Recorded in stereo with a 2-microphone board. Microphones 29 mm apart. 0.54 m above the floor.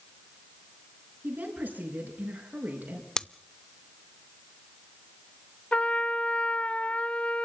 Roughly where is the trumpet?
Left.